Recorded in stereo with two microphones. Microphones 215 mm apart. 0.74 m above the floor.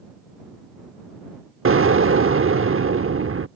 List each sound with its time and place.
1.6 s an explosion: 80° right